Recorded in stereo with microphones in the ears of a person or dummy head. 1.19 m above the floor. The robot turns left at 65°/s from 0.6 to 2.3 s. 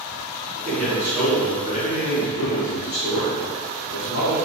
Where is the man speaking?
140° right, 0.9 m; by 4.3 s 110° left, 0.9 m.